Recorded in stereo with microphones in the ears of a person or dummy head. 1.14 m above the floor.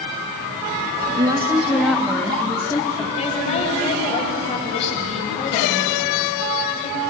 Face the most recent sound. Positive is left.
turn(degrees=35)  # may be behind; listen again after turning